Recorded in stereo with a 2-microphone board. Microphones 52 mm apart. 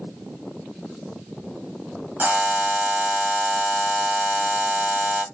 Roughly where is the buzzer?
Right.